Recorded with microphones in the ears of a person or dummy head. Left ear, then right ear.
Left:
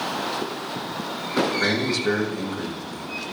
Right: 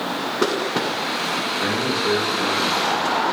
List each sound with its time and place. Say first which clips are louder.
1.6 s a man speaking: right 1 dB; 25° left (ahead or behind), 5.5 m